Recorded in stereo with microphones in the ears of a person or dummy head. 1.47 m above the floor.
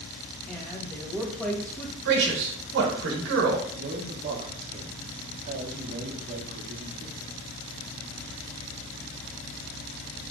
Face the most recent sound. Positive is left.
turn(degrees=-40)  # may be behind; listen again after turning